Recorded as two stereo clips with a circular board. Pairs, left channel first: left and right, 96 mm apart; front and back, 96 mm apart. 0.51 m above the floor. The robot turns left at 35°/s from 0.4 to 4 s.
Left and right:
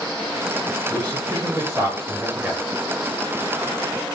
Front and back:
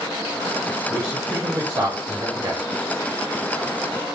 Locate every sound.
0.9 s a man speaking: 115° right, 1.6 m; by 2.6 s 175° right, 1.6 m